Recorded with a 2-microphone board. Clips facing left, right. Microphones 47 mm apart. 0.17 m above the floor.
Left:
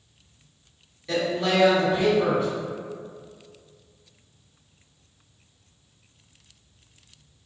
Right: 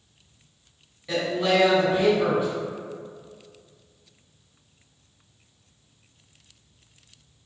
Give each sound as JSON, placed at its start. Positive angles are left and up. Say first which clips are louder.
{"t": 1.1, "sound": "a woman speaking", "louder": "right 1 dB", "side_deg": -10, "distance_m": 1.8}